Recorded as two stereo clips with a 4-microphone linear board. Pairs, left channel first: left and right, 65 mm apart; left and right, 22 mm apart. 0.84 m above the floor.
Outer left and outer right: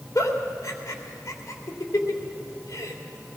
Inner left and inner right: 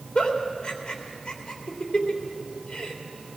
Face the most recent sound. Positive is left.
turn(degrees=55)  # may be behind; listen again after turning